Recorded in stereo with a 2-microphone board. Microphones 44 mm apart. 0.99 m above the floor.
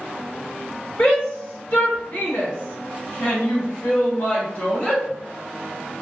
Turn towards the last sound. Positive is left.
turn(degrees=45)  # may be behind; listen again after turning